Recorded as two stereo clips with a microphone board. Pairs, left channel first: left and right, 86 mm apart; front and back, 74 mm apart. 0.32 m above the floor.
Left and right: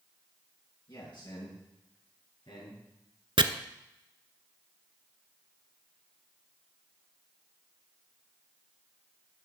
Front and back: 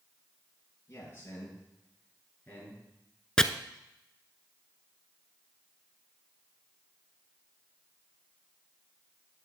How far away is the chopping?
About 0.6 m.